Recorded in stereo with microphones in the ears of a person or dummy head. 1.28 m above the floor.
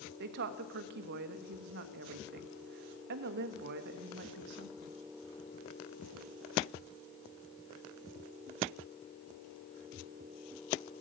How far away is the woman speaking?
About 1.2 m.